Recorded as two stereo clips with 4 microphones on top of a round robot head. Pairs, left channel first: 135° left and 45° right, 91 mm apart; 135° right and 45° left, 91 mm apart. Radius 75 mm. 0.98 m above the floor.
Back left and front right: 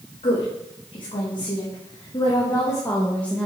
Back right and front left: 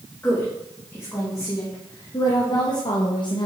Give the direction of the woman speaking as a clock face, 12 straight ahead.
7 o'clock.